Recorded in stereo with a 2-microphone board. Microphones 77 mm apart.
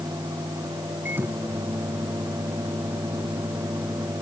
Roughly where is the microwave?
Right.